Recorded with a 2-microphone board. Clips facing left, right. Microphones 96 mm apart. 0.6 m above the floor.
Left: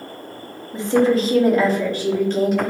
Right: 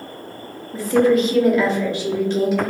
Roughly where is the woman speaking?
Centre.